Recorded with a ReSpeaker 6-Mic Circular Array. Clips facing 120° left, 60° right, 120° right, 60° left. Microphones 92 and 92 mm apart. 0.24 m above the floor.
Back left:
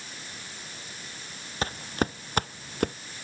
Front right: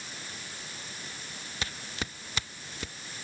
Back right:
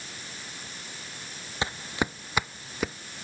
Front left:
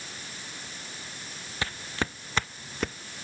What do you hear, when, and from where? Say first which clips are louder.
1.6 s footsteps: back left 10 dB, back right 3 dB; 170° left; by 3.0 s 155° left